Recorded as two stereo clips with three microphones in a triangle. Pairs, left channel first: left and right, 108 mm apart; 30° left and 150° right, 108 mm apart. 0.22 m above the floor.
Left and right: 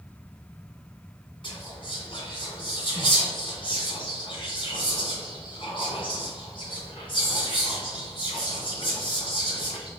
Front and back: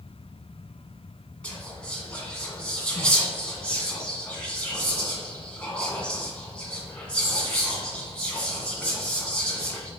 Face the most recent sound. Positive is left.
turn(degrees=110)